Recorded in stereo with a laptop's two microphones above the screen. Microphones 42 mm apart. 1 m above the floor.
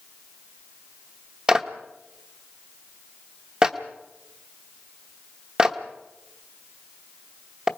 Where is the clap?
20° right (ahead or behind), 0.9 m.